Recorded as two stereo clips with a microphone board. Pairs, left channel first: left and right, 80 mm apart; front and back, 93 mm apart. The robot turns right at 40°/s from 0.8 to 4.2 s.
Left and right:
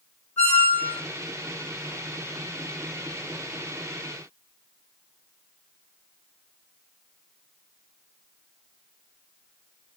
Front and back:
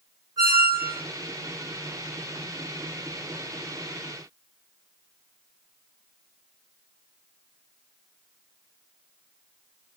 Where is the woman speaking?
I don't hear a woman speaking.